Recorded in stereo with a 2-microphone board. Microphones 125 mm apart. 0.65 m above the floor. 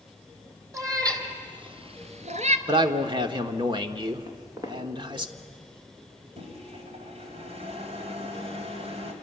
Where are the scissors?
I don't hear scissors.